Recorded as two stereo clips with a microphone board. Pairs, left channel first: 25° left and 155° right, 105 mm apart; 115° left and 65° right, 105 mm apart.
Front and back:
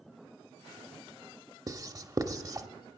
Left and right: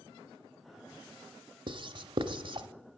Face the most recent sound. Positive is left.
turn(degrees=-105)